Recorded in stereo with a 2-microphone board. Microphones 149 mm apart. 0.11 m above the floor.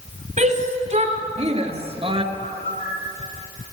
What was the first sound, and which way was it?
A shout, 50° right (ahead or behind).